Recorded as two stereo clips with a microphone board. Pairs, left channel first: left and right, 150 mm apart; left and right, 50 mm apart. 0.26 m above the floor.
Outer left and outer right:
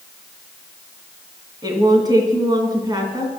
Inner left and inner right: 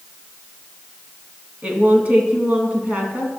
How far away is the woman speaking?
About 2.5 m.